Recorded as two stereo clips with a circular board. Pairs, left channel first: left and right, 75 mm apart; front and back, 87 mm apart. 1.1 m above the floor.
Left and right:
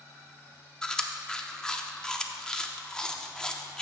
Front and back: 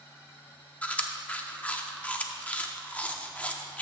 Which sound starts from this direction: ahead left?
Chewing, at 0.8 s.